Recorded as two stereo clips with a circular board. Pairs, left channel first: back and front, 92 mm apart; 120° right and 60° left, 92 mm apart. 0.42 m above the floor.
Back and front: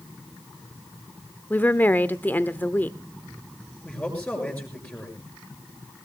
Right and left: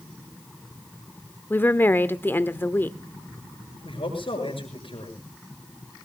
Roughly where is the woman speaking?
Behind right.